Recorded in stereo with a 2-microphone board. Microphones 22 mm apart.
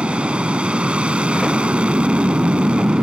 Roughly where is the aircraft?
Right.